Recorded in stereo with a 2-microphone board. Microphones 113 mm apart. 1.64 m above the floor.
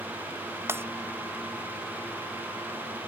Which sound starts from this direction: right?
Breaking glass, at 0.7 s.